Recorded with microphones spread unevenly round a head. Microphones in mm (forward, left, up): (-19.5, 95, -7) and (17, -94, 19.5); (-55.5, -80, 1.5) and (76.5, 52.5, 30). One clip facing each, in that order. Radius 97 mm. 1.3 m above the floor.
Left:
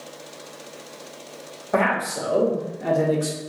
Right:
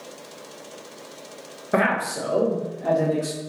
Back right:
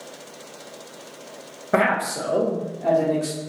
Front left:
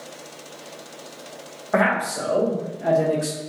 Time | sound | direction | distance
1.7 | a man speaking | 145° right | 0.6 m